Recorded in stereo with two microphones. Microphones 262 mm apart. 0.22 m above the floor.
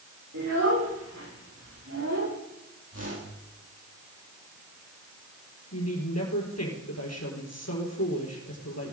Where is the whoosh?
65° right (ahead or behind), 6 m.